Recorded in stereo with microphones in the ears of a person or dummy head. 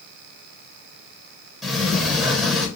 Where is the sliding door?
Centre (ahead or behind), 0.8 m.